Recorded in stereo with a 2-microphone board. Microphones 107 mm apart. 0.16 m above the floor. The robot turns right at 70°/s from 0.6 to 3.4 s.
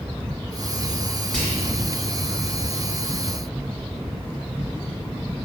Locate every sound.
1.3 s whispering: 5° left (ahead or behind), 1.4 m; by 1.8 s 15° left (ahead or behind), 1.4 m